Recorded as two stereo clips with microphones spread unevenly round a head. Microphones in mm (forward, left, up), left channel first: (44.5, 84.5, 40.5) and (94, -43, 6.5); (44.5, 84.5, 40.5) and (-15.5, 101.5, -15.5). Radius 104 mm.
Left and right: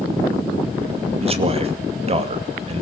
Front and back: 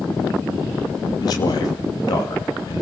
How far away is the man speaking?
About 2.5 m.